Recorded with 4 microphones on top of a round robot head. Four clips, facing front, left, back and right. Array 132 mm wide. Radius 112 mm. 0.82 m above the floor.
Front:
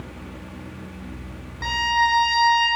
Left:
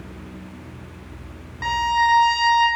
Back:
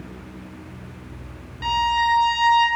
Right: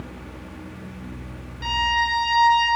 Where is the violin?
55° left, 5 m.